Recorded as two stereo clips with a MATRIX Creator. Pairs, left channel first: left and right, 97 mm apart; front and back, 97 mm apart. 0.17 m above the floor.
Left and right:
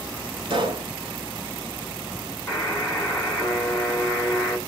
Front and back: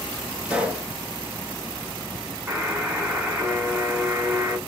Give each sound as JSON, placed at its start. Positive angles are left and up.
{"t": 0.5, "sound": "a pop", "azimuth_deg": -105, "distance_m": 0.8}
{"t": 2.5, "sound": "a buzzer", "azimuth_deg": 125, "distance_m": 1.7}